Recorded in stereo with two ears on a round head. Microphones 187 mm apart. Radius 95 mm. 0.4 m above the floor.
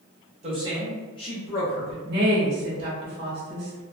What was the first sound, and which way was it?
A man speaking, 35° right (ahead or behind).